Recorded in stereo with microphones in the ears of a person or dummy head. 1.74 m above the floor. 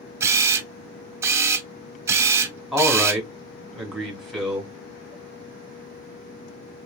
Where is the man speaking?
5° right (ahead or behind), 1.5 m.